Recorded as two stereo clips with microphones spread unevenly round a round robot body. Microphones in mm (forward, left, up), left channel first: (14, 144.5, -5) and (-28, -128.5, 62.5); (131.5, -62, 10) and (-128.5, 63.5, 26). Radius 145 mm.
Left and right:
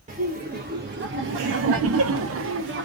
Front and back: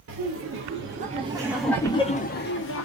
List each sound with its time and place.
0.1 s laughter: 170° right, 1.1 m; by 2.9 s 45° right, 0.9 m